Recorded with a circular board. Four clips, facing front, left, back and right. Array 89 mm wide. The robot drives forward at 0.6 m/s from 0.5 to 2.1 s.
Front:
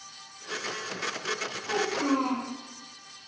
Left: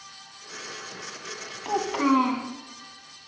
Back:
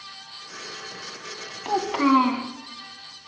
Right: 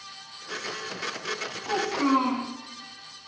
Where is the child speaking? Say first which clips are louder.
Left 2 dB, back 7 dB; 160° left, 1.1 m; by 2.5 s 165° left, 1.3 m.